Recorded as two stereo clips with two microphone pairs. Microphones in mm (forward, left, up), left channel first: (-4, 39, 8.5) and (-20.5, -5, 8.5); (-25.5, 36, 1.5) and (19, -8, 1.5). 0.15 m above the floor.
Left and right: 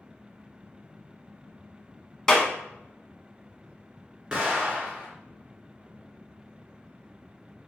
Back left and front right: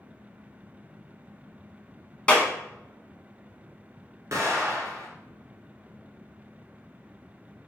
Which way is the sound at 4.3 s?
45° right.